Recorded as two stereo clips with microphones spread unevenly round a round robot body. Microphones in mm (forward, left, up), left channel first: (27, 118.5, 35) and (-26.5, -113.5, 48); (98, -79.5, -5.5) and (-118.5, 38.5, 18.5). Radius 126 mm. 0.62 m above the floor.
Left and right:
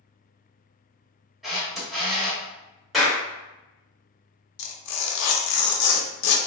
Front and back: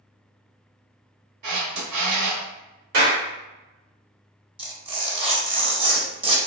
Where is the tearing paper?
85° left, 0.6 m.